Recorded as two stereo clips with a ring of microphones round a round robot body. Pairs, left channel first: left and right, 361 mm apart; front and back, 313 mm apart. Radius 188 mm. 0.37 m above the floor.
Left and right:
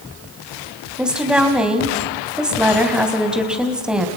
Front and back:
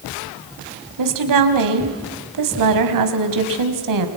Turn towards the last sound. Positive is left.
turn(degrees=180)